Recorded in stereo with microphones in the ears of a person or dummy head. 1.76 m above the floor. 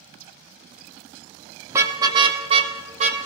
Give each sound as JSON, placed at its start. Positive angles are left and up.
{"t": 1.7, "sound": "a car horn", "side_deg": -15, "distance_m": 2.0}